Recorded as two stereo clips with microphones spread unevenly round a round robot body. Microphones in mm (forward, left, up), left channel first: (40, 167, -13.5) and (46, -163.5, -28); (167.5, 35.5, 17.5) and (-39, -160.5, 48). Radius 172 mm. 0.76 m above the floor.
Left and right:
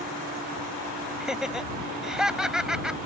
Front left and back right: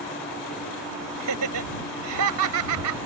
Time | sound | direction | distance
1.2 | laughter | 175° right | ?